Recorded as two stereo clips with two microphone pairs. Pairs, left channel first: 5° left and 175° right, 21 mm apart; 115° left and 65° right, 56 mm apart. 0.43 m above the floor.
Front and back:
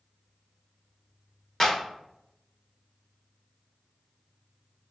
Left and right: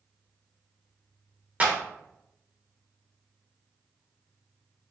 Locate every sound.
1.6 s a clap: 30° right, 1.0 m